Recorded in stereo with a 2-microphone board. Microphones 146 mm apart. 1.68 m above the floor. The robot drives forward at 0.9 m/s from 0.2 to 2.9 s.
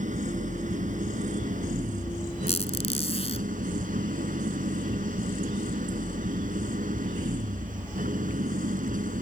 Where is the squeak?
45° left (ahead or behind).